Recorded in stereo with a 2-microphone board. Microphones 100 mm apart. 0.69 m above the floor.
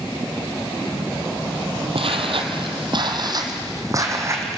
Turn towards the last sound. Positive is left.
turn(degrees=-25)  # may be behind; listen again after turning